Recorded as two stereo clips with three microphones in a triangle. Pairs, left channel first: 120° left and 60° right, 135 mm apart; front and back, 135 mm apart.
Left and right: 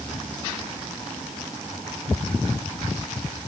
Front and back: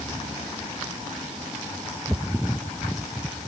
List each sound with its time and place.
Only background noise.